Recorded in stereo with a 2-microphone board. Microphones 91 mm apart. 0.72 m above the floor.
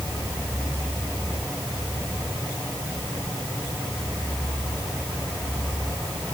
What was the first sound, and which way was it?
Only background noise.